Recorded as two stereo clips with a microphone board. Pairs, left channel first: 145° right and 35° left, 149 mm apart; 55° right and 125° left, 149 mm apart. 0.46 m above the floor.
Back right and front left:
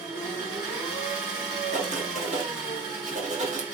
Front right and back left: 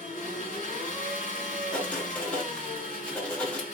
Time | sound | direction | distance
0.0 | an engine running | 105° left | 3 m
1.7 | writing | 25° left | 1.4 m